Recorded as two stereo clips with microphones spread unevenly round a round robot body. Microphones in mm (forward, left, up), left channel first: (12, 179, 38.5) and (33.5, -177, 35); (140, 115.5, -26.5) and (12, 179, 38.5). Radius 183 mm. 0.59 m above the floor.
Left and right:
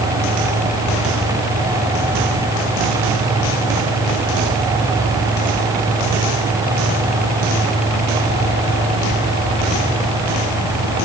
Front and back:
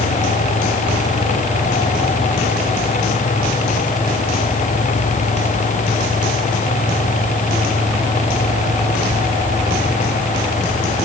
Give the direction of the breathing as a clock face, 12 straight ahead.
No breathing in this recording.